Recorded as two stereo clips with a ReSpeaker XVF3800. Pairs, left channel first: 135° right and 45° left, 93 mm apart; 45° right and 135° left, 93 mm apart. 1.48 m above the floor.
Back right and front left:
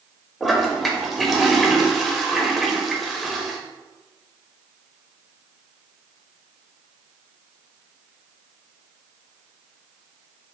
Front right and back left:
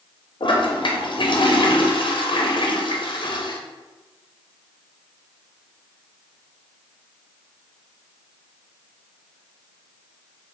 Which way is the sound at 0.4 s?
45° right.